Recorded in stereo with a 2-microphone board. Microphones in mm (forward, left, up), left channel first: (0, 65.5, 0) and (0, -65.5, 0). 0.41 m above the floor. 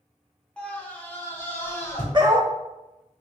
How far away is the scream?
About 1.1 m.